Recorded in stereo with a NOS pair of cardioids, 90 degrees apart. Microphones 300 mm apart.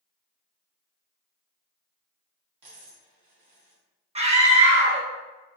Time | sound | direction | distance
2.6 | a dropped coin | 70° right | 1.5 m
4.2 | a scream | 20° right | 1.0 m